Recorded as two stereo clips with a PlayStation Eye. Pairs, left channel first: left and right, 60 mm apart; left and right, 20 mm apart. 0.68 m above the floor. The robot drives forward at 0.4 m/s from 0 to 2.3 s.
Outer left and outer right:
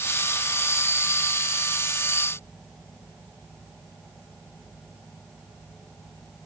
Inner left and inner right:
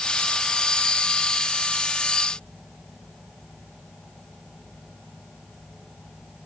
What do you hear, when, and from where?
Only background noise.